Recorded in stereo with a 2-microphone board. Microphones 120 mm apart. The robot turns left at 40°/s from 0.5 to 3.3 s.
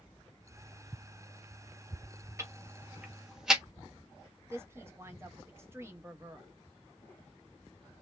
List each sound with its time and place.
2.4 s ticking: 25° right (ahead or behind), 0.8 m; by 3.6 s 5° right (ahead or behind), 0.8 m
4.5 s a woman speaking: 20° right (ahead or behind), 0.7 m